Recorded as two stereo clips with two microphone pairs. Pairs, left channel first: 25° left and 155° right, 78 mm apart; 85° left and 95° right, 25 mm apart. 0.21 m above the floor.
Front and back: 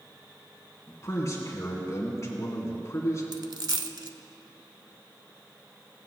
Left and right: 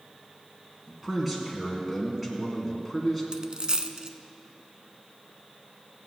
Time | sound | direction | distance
0.9 | a man speaking | 5° right | 2 m
3.3 | a dropped coin | 140° right | 0.5 m